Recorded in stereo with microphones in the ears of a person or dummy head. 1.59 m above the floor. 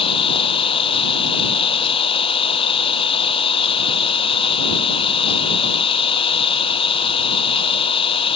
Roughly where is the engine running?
Left.